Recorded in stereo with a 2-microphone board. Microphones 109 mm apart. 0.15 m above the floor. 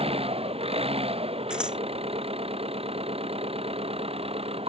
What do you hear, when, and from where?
0.0 s an engine running: 65° right (ahead or behind)
1.5 s scissors: 10° right (ahead or behind)